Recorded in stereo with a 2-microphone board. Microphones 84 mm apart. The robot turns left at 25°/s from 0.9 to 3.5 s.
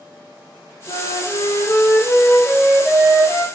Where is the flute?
65° left, 6 m; by 3.4 s straight ahead, 6 m.